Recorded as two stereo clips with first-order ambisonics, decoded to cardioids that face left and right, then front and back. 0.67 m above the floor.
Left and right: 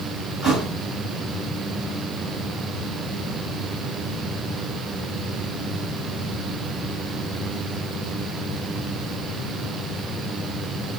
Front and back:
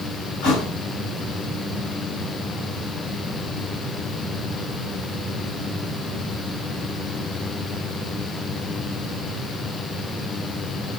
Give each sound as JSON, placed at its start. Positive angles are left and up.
{"t": 0.4, "sound": "a thud", "azimuth_deg": -5, "distance_m": 2.5}